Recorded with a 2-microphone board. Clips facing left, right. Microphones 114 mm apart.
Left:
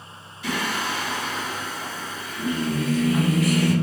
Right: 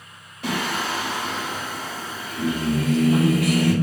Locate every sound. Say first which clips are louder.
0.4 s singing: right 1 dB; 60° right (ahead or behind), 2 m